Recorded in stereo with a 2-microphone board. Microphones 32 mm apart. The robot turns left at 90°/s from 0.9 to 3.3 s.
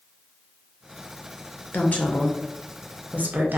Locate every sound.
1.7 s a woman speaking: 75° left, 0.6 m; by 3.6 s 70° right, 0.6 m